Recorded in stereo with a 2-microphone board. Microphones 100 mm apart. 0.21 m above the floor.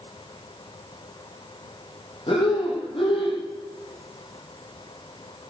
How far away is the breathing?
About 8.5 m.